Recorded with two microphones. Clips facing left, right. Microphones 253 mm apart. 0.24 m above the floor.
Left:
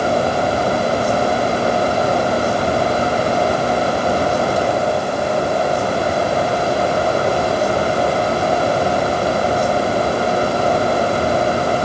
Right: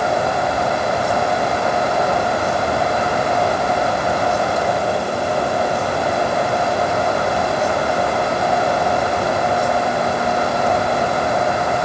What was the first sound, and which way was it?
Only background noise.